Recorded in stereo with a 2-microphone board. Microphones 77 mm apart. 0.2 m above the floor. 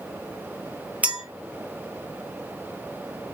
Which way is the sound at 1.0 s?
20° right (ahead or behind).